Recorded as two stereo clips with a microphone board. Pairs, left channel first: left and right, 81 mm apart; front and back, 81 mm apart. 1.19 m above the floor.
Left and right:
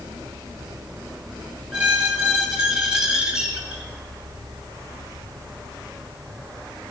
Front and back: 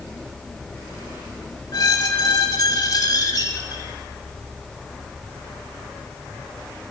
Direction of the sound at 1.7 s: 10° right.